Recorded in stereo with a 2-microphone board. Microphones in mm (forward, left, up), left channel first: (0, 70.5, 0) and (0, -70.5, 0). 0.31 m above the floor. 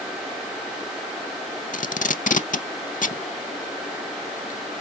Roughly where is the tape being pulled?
Left.